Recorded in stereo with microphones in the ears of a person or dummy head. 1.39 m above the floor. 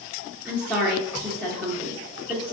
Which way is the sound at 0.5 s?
5° left (ahead or behind).